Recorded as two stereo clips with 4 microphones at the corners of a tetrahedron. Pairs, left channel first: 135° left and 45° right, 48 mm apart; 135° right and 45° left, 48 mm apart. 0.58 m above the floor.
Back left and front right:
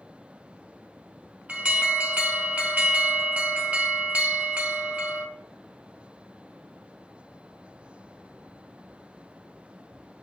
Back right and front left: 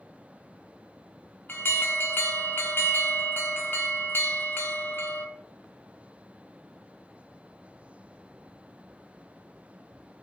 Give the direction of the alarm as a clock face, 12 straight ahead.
3 o'clock.